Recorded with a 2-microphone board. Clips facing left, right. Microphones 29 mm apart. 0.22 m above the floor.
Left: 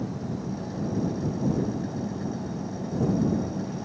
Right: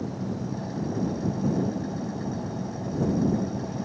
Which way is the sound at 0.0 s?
5° right (ahead or behind).